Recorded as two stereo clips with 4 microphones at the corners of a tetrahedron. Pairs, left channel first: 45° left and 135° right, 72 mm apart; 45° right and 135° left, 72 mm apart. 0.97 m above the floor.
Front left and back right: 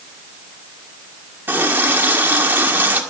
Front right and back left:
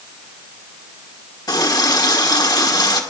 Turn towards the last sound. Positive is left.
turn(degrees=-70)